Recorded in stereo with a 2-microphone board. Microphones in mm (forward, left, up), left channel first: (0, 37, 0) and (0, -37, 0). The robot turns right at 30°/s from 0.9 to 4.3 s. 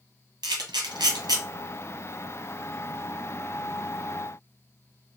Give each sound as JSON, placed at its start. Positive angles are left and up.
{"t": 0.4, "sound": "a camera shutter", "side_deg": -80, "distance_m": 1.8}